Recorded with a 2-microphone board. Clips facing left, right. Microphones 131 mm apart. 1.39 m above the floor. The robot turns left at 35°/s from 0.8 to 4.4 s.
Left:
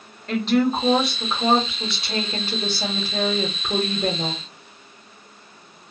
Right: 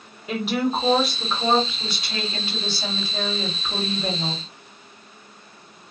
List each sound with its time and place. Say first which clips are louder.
0.3 s a woman speaking: left 4 dB; 170° right, 1.2 m; by 4.3 s 65° left, 1.2 m